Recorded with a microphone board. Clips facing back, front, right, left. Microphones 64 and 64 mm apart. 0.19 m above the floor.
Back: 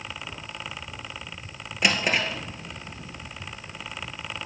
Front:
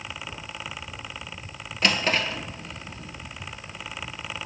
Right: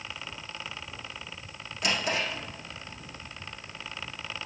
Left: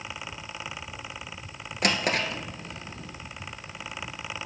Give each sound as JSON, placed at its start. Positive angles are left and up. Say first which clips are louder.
{"t": 1.8, "sound": "a drawer", "louder": "even, left 3 dB", "azimuth_deg": 105, "distance_m": 1.5}